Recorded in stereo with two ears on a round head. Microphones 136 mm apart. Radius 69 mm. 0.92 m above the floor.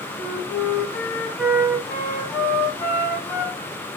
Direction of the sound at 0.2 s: 10° left (ahead or behind).